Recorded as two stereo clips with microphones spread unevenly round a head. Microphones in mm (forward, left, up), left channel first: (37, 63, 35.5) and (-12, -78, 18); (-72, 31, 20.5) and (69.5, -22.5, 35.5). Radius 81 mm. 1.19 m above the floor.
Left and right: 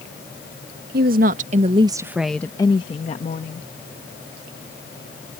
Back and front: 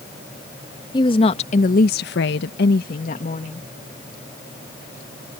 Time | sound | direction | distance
0.9 | a woman speaking | 140° right | ?